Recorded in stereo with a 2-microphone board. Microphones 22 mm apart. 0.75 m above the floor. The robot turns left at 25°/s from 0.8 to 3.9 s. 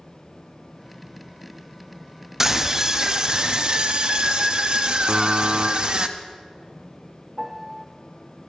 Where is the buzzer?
80° right, 0.8 m.